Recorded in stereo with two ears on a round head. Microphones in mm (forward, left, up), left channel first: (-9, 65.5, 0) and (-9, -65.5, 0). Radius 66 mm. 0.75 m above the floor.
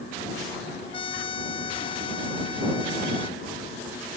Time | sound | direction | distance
0.9 | a trumpet | 35° left (ahead or behind) | ?